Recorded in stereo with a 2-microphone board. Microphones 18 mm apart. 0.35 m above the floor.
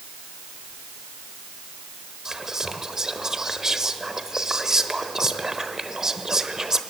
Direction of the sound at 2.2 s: 30° right (ahead or behind).